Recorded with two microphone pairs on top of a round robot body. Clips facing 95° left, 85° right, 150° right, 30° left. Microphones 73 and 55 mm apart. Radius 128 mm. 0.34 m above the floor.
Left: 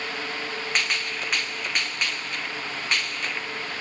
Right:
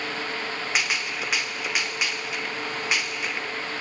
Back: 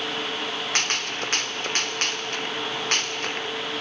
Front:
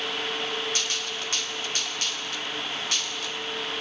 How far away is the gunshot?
About 0.9 m.